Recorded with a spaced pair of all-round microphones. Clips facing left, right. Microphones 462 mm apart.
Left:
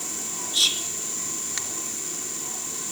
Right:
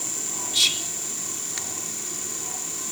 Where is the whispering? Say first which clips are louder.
Even; 45° right (ahead or behind), 0.8 m.